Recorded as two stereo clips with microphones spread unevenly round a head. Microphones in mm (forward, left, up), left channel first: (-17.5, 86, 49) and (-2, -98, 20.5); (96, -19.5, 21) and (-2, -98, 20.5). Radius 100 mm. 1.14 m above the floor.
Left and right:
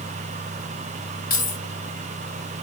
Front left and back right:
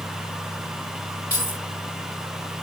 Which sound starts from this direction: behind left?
Keys jangling, at 1.3 s.